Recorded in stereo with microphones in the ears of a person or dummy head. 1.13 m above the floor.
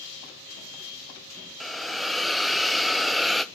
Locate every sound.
1.6 s a hiss: centre (ahead or behind), 0.6 m